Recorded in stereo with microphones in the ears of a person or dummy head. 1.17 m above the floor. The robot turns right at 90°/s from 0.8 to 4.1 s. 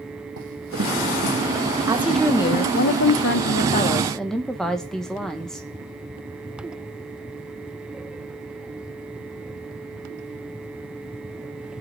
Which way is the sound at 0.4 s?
70° right (ahead or behind).